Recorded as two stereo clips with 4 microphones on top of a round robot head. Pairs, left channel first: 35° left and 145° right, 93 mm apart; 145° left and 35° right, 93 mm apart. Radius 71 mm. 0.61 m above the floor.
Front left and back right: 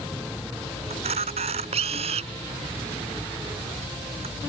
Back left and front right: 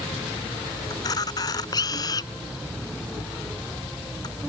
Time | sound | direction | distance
0.9 | a camera shutter | 165° right | ?